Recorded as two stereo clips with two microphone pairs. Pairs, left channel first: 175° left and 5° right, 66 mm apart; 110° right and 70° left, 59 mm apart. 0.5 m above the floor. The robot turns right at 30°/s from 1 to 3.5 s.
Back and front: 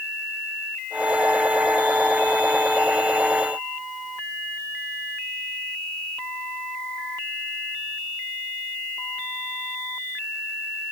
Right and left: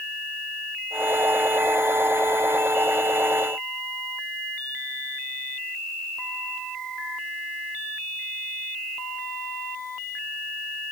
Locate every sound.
Only background noise.